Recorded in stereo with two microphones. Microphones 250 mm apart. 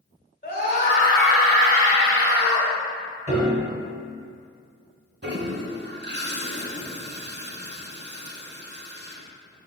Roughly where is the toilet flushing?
Right.